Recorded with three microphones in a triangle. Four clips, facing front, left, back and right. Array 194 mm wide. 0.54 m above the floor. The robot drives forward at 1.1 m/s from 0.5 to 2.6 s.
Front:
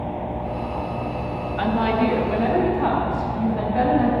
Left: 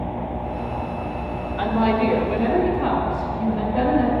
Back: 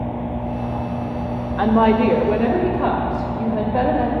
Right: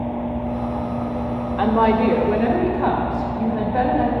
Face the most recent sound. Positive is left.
turn(degrees=-170)